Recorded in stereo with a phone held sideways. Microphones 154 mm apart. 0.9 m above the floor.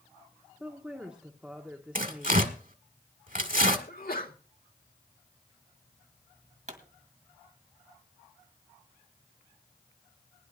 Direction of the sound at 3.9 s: 75° left (ahead or behind).